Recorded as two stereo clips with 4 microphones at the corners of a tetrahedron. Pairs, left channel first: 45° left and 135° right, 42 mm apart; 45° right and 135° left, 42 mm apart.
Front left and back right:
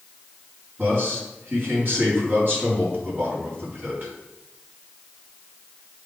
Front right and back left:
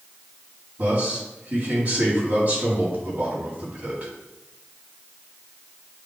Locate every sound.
0.8 s a man speaking: 170° right, 3.5 m